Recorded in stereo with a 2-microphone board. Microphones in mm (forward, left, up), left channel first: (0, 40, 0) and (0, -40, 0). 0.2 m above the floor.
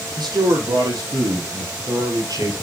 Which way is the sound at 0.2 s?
70° right (ahead or behind).